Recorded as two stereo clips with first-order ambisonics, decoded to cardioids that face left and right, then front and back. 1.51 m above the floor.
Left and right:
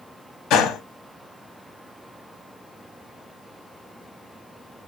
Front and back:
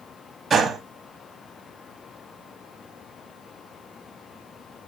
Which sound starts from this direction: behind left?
A gunshot, at 0.5 s.